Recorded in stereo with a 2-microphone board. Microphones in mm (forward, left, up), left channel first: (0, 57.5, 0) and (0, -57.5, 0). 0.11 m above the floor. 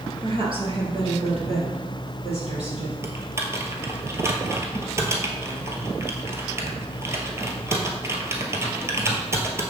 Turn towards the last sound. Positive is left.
turn(degrees=-25)  # may be behind; listen again after turning